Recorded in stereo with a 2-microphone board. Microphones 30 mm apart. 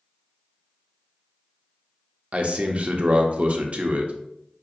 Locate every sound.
2.3 s a man speaking: 45° right (ahead or behind), 0.6 m